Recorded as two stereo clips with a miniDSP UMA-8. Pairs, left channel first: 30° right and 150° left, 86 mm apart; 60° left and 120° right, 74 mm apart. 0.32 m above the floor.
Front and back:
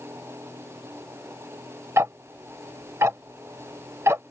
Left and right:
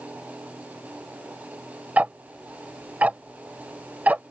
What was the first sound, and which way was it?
Ticking, 175° right.